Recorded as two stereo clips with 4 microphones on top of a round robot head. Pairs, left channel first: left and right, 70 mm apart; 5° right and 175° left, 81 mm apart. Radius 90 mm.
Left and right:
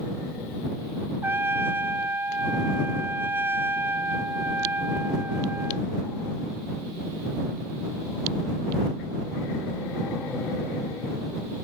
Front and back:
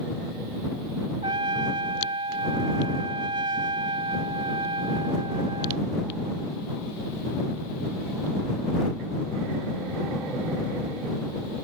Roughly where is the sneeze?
I don't hear a sneeze.